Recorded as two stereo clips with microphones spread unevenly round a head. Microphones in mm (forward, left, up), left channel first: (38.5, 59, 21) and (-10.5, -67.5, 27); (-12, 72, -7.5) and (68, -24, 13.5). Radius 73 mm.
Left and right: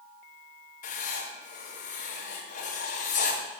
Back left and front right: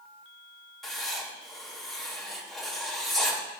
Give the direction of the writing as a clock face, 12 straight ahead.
11 o'clock.